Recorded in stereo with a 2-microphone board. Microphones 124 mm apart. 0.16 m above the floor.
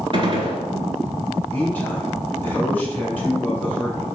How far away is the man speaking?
About 1.9 m.